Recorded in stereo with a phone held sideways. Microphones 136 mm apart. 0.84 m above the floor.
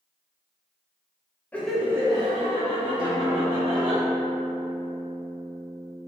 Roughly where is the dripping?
No dripping in this recording.